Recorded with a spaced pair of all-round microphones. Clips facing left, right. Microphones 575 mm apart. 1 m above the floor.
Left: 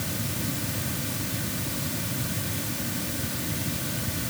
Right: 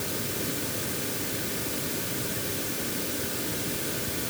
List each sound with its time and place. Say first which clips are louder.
0.0 s a fan: even; 25° left (ahead or behind)